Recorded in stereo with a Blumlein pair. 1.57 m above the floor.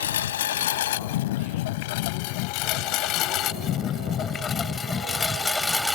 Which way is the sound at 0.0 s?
60° left.